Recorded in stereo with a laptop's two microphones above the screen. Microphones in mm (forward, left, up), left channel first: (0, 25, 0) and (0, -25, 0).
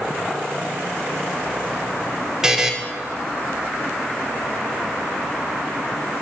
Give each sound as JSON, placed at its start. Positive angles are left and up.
{"t": 2.4, "sound": "a buzzer", "side_deg": -10, "distance_m": 0.5}